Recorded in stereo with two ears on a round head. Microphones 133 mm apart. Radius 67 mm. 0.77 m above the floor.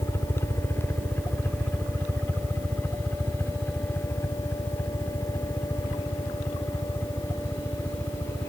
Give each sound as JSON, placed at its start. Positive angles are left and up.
{"t": 0.0, "sound": "a helicopter", "side_deg": 15}